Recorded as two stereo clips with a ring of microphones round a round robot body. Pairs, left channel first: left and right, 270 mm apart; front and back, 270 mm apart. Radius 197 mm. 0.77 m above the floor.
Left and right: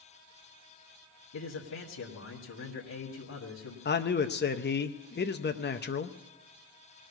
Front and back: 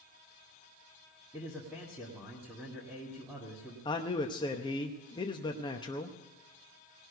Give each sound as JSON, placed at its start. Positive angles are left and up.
{"t": 1.3, "sound": "a man speaking", "azimuth_deg": 95, "distance_m": 1.8}
{"t": 3.9, "sound": "a man speaking", "azimuth_deg": 65, "distance_m": 0.7}